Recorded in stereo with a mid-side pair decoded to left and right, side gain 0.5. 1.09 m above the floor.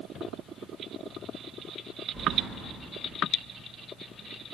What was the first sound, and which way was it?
Keys jangling, 15° right.